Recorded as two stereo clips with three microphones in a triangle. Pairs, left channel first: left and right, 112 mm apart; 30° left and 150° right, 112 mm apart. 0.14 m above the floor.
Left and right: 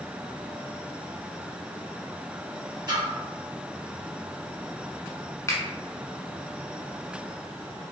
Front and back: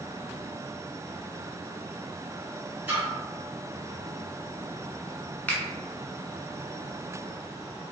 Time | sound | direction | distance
2.9 | a splash | 85° right | 1.5 m
5.5 | a finger snap | 85° left | 0.9 m